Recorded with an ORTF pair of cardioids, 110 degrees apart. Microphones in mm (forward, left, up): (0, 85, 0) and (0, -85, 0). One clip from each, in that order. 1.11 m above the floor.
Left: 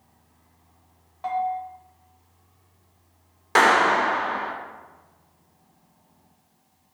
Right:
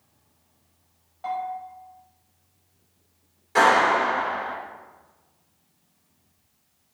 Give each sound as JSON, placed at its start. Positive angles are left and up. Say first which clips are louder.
{"t": 1.2, "sound": "a bell", "louder": "left 4 dB", "azimuth_deg": 25, "distance_m": 0.7}
{"t": 3.5, "sound": "a clap", "louder": "left 1 dB", "azimuth_deg": 65, "distance_m": 0.6}